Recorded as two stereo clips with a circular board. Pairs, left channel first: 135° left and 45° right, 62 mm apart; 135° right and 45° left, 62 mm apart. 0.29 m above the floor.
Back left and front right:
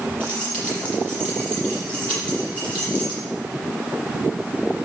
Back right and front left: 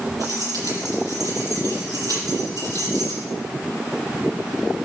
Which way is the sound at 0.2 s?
60° left.